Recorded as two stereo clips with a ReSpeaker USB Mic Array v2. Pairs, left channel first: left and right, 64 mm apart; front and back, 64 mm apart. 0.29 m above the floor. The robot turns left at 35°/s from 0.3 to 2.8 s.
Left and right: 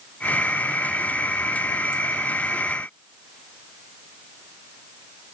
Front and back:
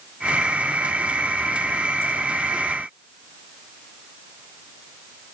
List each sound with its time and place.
Only background noise.